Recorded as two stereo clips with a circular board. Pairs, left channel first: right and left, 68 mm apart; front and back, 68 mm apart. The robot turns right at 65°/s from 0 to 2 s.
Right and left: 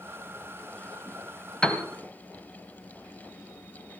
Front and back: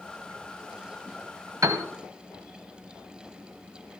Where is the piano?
165° right, 1.5 m; by 1.8 s 150° right, 1.5 m.